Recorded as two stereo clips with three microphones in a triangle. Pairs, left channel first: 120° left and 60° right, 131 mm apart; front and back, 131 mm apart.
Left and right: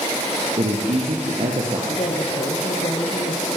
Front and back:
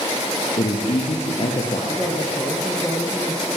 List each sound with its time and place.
0.6 s a man speaking: 35° right, 4 m
1.9 s a woman speaking: 90° left, 4 m